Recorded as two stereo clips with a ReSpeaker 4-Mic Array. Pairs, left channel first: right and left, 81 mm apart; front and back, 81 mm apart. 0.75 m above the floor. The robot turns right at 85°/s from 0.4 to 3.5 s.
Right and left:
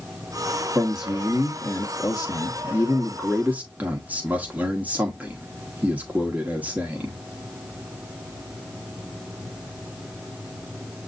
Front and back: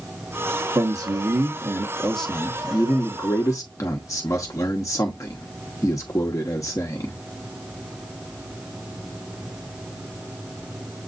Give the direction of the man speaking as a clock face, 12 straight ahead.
7 o'clock.